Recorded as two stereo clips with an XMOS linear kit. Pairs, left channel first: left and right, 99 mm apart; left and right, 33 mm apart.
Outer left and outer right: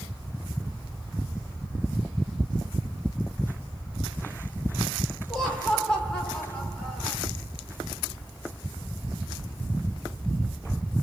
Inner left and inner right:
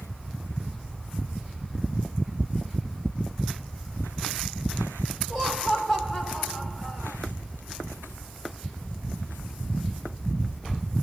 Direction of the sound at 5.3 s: 10° left (ahead or behind).